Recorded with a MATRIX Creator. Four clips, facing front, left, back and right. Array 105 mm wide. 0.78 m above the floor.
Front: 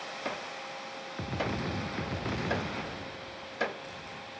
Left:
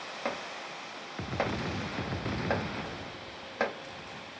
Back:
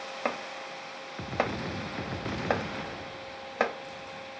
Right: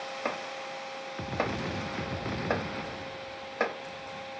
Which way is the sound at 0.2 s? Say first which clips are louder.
Even, back 5 dB; straight behind.